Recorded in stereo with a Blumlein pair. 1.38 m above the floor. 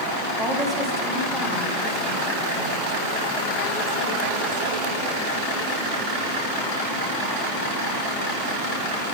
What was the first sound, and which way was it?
A woman speaking, 5° right.